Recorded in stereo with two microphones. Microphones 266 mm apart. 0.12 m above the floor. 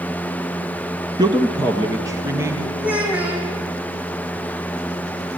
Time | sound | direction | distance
1.2 | a man speaking | 15° right (ahead or behind) | 1.0 m
2.8 | a child speaking | 5° right (ahead or behind) | 5.5 m